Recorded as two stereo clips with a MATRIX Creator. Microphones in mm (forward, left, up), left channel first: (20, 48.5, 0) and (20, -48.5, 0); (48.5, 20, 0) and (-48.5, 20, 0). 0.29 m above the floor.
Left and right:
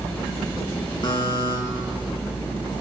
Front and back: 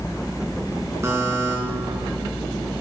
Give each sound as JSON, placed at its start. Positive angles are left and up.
{"t": 1.0, "sound": "a buzzer", "azimuth_deg": 120, "distance_m": 2.5}